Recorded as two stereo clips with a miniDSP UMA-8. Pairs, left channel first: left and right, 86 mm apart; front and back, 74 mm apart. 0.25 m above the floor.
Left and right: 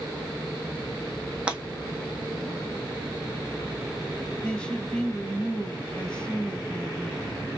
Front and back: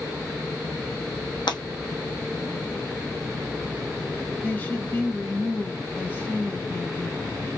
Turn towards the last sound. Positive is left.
turn(degrees=20)